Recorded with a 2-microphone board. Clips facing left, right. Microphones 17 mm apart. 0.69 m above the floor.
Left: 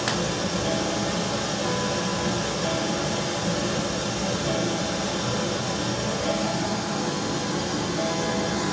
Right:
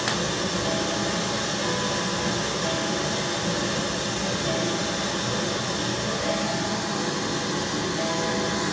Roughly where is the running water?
Centre.